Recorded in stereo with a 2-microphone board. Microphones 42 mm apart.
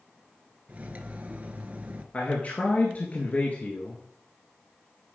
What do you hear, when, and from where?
0.7 s cutlery clinking: 40° right (ahead or behind), 0.9 m
2.1 s a man speaking: 40° left (ahead or behind), 1.6 m